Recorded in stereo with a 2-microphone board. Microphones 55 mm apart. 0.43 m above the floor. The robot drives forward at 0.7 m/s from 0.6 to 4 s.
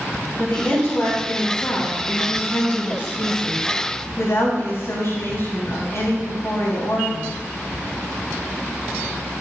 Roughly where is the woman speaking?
Left.